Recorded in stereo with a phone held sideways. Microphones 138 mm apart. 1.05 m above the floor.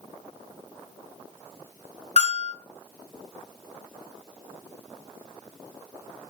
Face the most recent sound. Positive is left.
turn(degrees=55)  # may be behind; listen again after turning